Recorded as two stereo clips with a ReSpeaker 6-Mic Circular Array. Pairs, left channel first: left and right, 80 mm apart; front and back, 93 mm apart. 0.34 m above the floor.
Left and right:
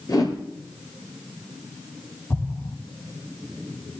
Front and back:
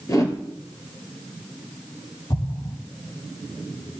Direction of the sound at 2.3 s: 40° left.